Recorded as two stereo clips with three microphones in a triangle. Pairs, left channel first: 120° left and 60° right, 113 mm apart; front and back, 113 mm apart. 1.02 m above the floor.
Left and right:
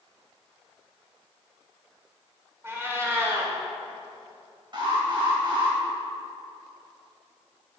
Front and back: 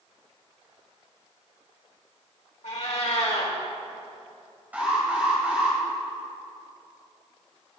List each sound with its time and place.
2.6 s a cat meowing: 5° left, 1.8 m
4.7 s an alarm: 105° right, 3 m